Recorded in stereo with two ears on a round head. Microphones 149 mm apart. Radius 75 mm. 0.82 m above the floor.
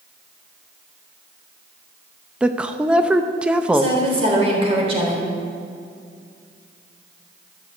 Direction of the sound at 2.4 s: 5° right (ahead or behind).